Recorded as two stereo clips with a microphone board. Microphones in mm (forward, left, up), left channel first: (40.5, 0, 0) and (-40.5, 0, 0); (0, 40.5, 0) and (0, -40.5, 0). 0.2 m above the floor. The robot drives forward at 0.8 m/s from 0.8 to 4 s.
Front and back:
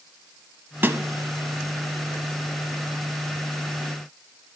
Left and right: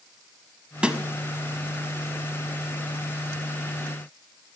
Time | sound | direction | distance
0.8 | a snare drum | 155° right | 0.7 m